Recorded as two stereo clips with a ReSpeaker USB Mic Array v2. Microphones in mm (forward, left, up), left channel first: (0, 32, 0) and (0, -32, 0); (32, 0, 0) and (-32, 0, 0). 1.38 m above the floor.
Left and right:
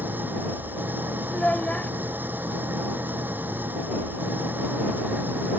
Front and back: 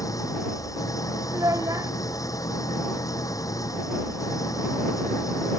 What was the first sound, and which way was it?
An engine running, 30° right.